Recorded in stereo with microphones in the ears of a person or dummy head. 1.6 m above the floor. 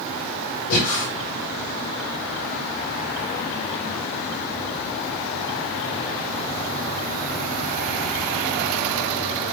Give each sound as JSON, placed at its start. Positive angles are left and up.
{"t": 0.7, "sound": "breathing", "side_deg": 65, "distance_m": 2.0}